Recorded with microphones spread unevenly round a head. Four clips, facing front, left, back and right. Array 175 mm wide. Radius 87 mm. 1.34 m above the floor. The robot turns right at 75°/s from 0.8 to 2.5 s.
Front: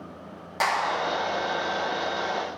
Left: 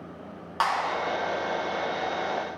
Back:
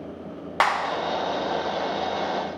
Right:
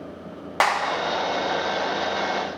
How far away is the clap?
About 1.3 m.